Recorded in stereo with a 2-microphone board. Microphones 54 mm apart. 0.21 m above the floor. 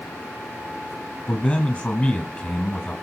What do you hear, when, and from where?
1.3 s a man speaking: 25° left (ahead or behind), 1.2 m